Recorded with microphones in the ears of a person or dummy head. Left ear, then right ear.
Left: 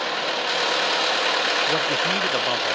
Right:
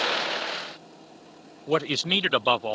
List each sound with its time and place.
1.7 s a man speaking: 75° right (ahead or behind); by 2.7 s 50° right (ahead or behind)